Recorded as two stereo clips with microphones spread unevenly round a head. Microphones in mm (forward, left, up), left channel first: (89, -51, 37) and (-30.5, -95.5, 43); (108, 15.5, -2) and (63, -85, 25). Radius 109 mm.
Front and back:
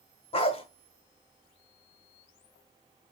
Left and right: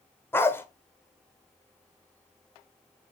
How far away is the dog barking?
About 1.1 m.